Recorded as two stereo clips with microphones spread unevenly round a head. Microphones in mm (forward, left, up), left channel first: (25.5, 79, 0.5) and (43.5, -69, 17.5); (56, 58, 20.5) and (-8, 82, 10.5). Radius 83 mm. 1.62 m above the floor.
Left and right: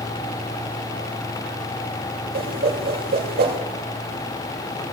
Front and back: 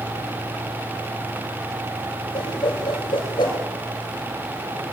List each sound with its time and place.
2.3 s a whoosh: 65° right, 8.5 m